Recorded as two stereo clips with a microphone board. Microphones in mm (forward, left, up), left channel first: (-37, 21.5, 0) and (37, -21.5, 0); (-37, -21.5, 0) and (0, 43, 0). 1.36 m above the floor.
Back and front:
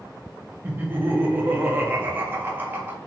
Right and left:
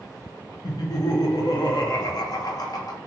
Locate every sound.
0.6 s laughter: 95° right, 0.6 m